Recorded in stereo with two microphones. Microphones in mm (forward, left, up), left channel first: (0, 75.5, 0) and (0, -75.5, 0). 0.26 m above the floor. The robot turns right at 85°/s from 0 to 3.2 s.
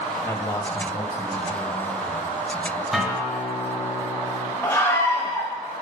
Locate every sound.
0.2 s a man speaking: 15° left (ahead or behind), 0.9 m; by 2.8 s 25° right (ahead or behind), 0.9 m
2.9 s a guitar: centre (ahead or behind), 1.7 m; by 4.5 s 10° left (ahead or behind), 1.7 m
4.6 s a scream: 20° left (ahead or behind), 0.9 m